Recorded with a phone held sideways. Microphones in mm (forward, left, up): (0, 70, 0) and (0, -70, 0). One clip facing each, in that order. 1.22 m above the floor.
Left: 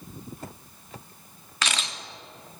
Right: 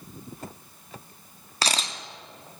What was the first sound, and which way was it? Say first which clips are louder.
A camera shutter: right 2 dB; 35° right (ahead or behind).